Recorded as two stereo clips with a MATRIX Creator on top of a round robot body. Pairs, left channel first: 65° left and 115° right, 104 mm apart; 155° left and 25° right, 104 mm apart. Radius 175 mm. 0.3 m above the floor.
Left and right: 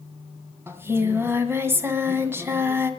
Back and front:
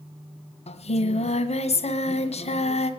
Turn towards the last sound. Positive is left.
turn(degrees=180)